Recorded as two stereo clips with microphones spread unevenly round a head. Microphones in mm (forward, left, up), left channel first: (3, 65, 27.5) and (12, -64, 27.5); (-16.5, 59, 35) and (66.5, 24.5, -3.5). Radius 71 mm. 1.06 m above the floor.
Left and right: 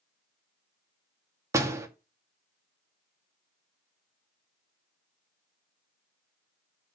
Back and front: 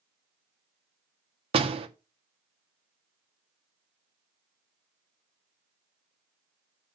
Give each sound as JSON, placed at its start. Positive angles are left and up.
{"t": 1.5, "sound": "a door slam", "azimuth_deg": -15, "distance_m": 1.5}